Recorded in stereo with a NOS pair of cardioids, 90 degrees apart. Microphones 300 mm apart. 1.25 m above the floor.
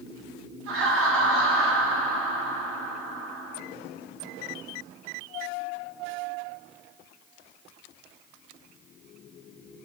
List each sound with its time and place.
0.7 s laughter: 50° right, 1.3 m